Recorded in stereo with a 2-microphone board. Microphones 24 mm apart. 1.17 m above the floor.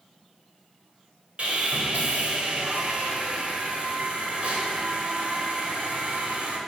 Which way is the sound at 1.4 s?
55° right (ahead or behind).